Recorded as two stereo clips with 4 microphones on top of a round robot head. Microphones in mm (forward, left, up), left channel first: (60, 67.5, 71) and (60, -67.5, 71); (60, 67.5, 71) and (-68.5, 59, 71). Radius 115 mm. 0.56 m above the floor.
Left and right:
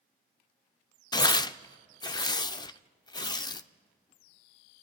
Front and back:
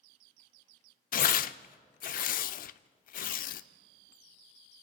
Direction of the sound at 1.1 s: 25° left.